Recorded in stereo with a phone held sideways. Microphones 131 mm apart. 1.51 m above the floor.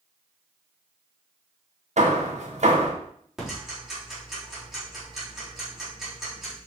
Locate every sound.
2.0 s hammering: 60° right (ahead or behind), 1.5 m
3.4 s ticking: 5° right (ahead or behind), 3.5 m